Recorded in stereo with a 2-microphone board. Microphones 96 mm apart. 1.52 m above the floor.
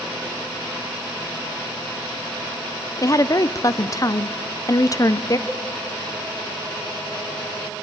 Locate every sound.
3.0 s a woman speaking: 35° left (ahead or behind), 0.7 m
5.5 s a cowbell: 5° right (ahead or behind), 3.5 m